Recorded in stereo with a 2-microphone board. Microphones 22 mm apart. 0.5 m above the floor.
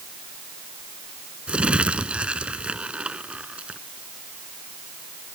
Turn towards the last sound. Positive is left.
turn(degrees=-60)  # may be behind; listen again after turning